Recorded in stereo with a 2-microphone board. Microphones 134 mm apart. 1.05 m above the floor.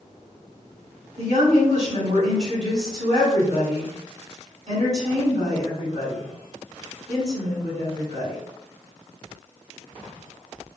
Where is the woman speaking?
60° right (ahead or behind), 1.7 m.